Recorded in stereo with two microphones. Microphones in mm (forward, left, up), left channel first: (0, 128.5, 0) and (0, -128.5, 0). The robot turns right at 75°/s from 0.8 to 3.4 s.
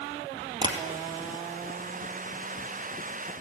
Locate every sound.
0.6 s tapping: 20° right (ahead or behind), 2 m